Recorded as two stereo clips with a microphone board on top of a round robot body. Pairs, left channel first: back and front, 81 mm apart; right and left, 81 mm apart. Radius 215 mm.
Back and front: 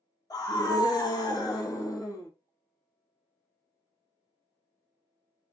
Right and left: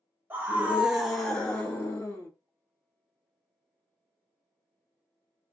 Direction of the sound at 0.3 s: 150° left.